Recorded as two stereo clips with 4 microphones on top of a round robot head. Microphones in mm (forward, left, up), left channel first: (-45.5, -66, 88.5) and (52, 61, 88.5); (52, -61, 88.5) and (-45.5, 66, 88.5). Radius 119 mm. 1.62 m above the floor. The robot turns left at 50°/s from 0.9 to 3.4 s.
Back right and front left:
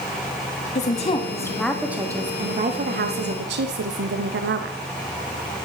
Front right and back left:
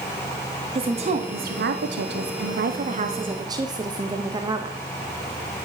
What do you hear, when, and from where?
0.8 s a woman speaking: 175° right, 1.2 m; by 4.8 s 60° left, 1.2 m